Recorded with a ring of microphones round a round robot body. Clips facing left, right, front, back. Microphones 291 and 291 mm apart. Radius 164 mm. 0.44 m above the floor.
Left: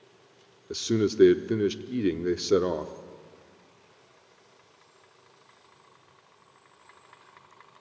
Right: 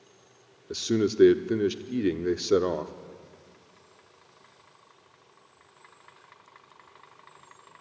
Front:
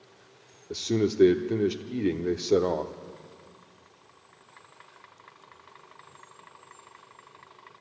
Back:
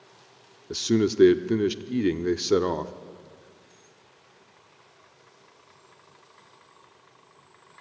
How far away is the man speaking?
About 0.8 m.